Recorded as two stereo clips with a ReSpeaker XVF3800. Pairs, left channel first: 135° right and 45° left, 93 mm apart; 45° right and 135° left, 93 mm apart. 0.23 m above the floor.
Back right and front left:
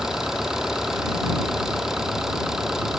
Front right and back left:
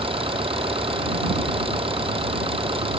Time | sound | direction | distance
0.0 | an engine running | 130° left | ?